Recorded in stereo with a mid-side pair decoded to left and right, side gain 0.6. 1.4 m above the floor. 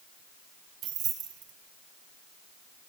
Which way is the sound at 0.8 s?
60° right.